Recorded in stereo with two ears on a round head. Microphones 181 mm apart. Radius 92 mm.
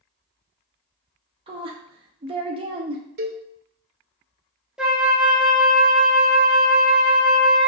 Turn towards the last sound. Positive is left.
turn(degrees=-5)  # may be behind; listen again after turning